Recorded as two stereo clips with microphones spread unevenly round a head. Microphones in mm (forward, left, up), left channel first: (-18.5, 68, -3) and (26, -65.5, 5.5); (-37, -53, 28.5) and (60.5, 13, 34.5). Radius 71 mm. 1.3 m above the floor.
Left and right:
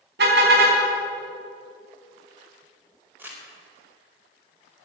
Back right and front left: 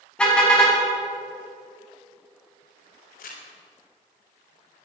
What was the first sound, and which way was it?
A car horn, 65° right.